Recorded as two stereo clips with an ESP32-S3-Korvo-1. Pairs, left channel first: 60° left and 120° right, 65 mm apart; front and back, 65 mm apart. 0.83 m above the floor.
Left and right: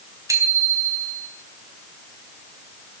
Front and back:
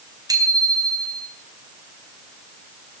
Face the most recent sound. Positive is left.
turn(degrees=-155)